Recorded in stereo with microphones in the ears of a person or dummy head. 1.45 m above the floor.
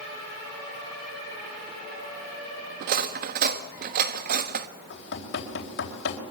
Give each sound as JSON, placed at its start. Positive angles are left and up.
{"t": 2.8, "sound": "cutlery clinking", "side_deg": -50, "distance_m": 1.2}
{"t": 4.9, "sound": "knocking", "side_deg": 70, "distance_m": 4.0}